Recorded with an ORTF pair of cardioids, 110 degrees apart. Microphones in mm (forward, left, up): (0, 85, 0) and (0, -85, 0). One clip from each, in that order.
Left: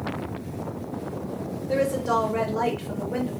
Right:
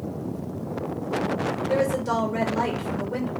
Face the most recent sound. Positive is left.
turn(degrees=-10)